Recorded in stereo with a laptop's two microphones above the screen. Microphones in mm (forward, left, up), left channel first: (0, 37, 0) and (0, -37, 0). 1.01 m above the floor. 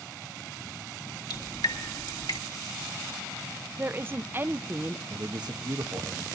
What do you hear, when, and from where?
1.3 s dripping: 70° left (ahead or behind), 2 m
3.8 s a woman speaking: 30° right (ahead or behind), 0.5 m
5.1 s a man speaking: 60° right (ahead or behind), 1.3 m